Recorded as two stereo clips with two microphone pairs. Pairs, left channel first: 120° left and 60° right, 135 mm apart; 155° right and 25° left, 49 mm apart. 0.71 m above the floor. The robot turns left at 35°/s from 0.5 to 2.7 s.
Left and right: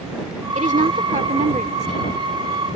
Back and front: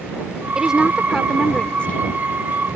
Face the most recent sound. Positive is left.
turn(degrees=-120)